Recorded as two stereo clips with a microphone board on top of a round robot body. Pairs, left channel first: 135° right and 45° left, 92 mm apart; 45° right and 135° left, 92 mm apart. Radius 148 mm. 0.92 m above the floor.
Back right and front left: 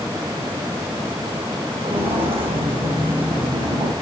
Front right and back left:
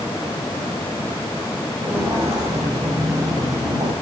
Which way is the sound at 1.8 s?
65° left.